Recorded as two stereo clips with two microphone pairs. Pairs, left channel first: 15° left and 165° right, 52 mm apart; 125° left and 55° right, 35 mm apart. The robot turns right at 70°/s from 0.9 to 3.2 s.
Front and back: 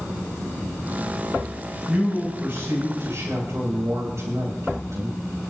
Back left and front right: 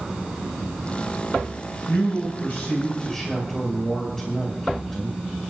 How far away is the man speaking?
About 6.5 m.